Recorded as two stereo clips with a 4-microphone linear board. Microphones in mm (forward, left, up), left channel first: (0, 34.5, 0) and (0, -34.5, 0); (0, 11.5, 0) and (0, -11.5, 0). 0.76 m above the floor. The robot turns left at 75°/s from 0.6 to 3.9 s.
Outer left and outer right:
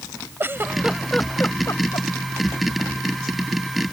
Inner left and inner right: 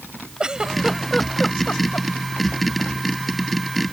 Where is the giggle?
30° right (ahead or behind); by 2.1 s 75° left (ahead or behind).